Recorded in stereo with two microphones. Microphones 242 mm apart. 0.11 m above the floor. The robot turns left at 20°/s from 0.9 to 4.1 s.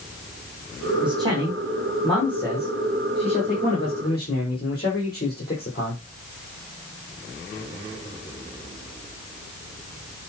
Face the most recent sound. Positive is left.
turn(degrees=140)